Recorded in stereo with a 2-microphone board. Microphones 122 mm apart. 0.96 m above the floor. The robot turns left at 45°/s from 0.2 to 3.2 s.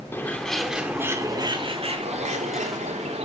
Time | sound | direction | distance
0.1 | a bird | 20° left | 3 m